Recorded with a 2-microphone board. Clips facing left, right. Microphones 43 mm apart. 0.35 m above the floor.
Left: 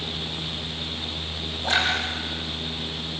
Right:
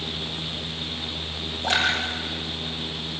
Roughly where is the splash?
Right.